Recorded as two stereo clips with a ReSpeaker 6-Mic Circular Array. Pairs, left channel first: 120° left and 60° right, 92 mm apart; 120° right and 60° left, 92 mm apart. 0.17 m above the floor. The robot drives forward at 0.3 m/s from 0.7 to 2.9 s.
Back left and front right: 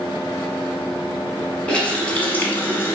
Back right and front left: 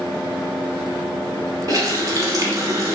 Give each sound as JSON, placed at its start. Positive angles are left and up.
{"t": 1.7, "sound": "a running tap", "azimuth_deg": 45, "distance_m": 1.0}